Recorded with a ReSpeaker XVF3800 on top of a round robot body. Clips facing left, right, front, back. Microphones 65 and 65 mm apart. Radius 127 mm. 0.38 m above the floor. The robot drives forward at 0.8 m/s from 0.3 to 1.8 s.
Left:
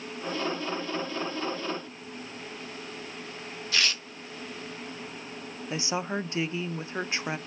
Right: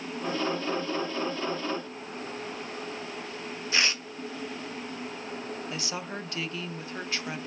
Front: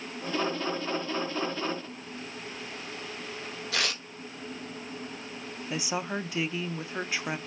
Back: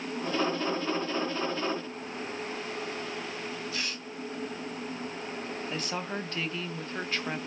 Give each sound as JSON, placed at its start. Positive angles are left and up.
{"t": 3.7, "sound": "tearing paper", "azimuth_deg": -20, "distance_m": 0.9}
{"t": 5.7, "sound": "a woman speaking", "azimuth_deg": 65, "distance_m": 0.8}